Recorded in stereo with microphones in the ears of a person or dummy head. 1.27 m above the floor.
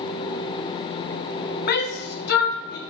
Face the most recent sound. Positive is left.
turn(degrees=55)  # may be behind; listen again after turning